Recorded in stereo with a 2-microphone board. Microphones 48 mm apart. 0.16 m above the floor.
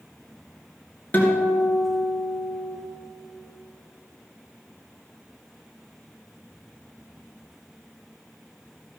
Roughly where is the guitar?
Left.